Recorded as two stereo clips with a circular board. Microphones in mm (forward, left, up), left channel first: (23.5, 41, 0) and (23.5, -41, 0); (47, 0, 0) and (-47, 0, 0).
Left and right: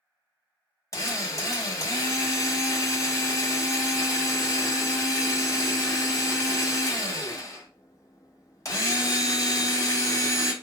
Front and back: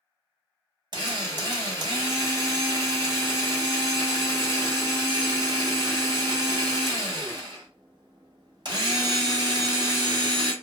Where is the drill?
140° left, 0.9 m.